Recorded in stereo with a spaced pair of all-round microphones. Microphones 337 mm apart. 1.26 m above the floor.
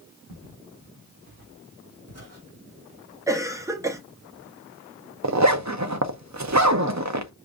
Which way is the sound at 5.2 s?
55° right (ahead or behind).